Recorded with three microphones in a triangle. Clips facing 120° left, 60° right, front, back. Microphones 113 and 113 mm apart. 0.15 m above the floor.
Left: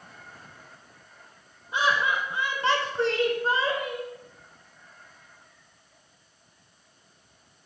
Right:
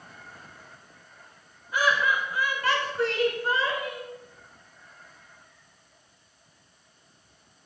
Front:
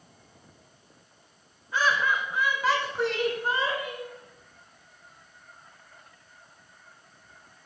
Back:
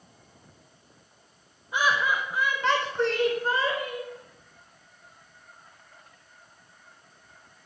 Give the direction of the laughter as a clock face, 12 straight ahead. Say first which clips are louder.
Even, even; 8 o'clock.